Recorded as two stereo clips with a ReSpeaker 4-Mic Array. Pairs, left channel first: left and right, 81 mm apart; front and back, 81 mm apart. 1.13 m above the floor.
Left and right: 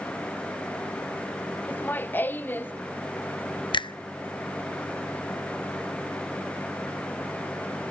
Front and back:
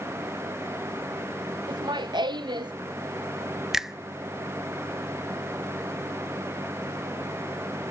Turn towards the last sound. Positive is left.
turn(degrees=95)